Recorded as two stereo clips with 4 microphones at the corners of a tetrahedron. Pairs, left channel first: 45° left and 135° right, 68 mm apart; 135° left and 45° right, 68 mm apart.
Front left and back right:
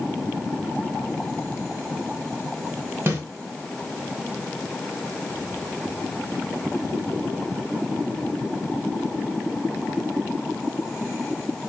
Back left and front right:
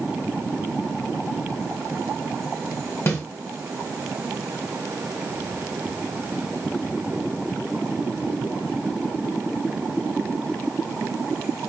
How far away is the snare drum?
About 1.7 m.